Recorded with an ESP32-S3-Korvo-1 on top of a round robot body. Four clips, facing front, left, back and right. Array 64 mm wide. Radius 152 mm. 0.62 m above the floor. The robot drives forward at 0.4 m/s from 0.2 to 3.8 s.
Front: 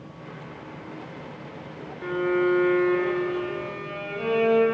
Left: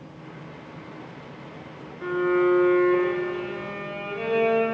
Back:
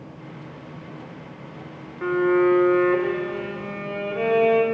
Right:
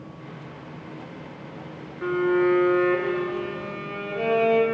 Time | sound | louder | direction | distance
2.0 | a violin | even, back 5 dB | 160° right | 0.5 m